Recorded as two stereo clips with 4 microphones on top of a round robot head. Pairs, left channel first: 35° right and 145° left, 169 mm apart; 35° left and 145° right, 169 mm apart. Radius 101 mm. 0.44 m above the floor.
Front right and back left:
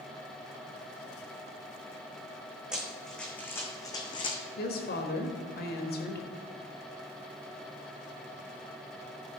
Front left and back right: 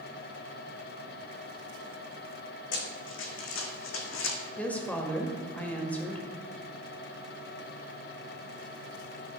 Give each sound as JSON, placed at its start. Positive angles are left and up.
{"t": 2.7, "sound": "running footsteps", "azimuth_deg": 60, "distance_m": 1.5}
{"t": 4.6, "sound": "a woman speaking", "azimuth_deg": -45, "distance_m": 1.6}